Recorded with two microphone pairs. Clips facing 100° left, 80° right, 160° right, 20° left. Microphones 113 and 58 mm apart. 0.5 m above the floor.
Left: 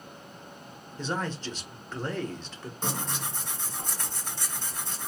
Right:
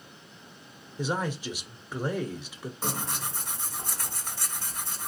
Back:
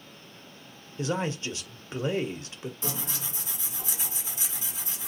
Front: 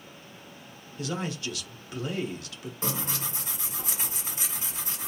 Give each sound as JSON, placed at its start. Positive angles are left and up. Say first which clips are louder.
{"t": 1.0, "sound": "a man speaking", "louder": "right 2 dB, back 3 dB", "azimuth_deg": -150, "distance_m": 0.8}
{"t": 2.8, "sound": "tearing paper", "louder": "left 1 dB, front 7 dB", "azimuth_deg": 0, "distance_m": 2.0}